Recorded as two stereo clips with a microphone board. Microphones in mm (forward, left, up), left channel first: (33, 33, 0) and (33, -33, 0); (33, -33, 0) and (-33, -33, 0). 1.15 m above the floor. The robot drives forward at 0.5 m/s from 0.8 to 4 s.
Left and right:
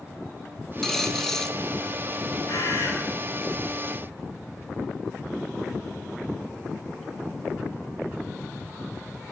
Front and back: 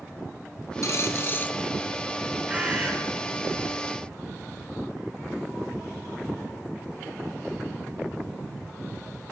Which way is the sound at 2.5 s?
110° left.